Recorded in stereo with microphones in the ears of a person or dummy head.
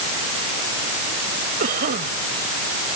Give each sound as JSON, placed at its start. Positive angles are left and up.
{"t": 1.6, "sound": "a cough", "side_deg": -50}